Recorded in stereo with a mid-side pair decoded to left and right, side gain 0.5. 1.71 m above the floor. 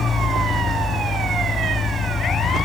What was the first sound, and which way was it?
An engine running, 35° left.